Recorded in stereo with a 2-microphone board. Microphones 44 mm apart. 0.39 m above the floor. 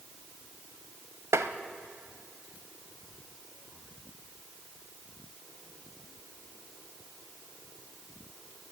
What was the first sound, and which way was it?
Tapping, 85° right.